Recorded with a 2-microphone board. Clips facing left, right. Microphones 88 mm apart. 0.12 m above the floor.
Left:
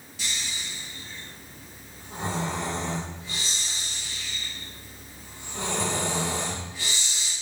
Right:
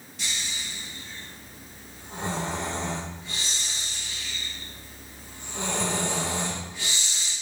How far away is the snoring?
About 1.3 m.